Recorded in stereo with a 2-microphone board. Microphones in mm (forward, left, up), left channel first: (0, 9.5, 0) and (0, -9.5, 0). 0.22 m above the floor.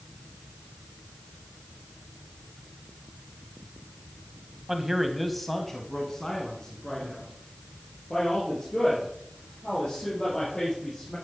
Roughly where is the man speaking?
Right.